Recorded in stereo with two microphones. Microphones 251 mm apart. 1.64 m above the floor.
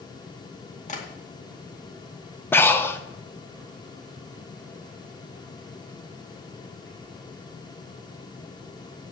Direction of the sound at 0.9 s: 30° left (ahead or behind).